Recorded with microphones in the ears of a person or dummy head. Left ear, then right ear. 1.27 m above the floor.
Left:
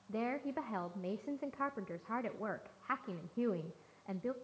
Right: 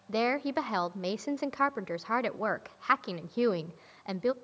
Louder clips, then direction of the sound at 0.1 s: Right 10 dB; 80° right.